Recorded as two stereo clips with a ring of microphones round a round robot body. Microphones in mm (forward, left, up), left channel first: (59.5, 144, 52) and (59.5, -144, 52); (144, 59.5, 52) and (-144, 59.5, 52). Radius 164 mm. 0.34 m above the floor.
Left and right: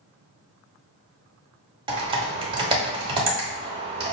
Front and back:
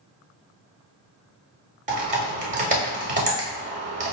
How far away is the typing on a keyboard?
About 0.9 m.